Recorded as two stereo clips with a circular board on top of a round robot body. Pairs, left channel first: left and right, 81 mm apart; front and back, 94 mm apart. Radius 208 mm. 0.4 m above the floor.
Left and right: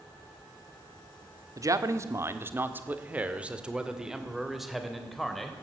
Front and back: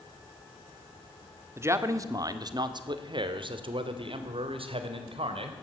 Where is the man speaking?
125° right, 1.9 m; by 5.5 s 175° left, 3.5 m.